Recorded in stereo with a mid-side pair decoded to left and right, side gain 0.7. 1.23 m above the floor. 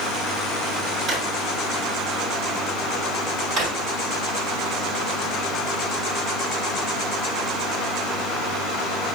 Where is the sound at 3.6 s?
35° right, 1.7 m.